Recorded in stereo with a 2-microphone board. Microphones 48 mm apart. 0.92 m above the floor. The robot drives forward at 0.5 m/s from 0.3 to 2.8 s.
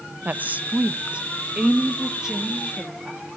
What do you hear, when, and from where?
0.2 s a woman speaking: 35° right (ahead or behind), 0.5 m; by 3.2 s 10° right (ahead or behind), 1.4 m